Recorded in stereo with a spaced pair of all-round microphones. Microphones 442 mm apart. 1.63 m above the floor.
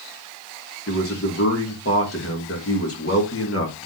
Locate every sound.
0.9 s a man speaking: 30° left (ahead or behind), 1.4 m